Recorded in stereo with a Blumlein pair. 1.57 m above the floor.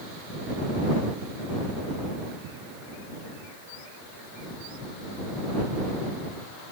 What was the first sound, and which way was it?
Only background noise.